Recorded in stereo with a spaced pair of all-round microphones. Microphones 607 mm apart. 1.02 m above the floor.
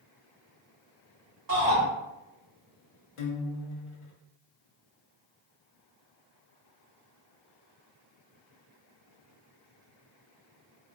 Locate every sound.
1.5 s a shout: 35° right (ahead or behind), 1.1 m
3.2 s a guitar: 60° left (ahead or behind), 0.6 m